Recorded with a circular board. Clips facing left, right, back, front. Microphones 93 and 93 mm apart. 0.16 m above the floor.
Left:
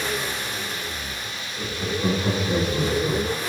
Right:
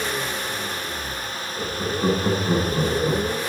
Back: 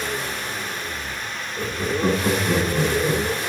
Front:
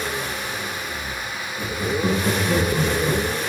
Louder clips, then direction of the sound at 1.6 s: Right 2 dB, even; 140° right.